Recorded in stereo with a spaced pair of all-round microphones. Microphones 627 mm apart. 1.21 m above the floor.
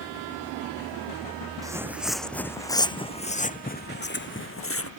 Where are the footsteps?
5° right (ahead or behind); by 4.9 s 20° left (ahead or behind).